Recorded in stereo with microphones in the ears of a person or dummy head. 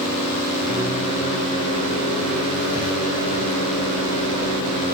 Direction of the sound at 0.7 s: 40° left (ahead or behind).